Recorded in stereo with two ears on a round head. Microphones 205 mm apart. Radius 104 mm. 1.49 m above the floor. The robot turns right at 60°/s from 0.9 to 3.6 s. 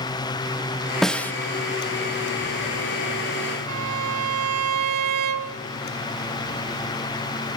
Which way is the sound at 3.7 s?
80° right.